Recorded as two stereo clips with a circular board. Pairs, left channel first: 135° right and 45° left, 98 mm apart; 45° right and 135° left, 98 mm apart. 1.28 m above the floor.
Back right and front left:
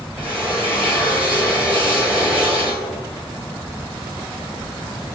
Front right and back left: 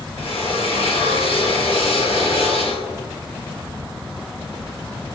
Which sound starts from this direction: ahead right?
A drill, at 0.2 s.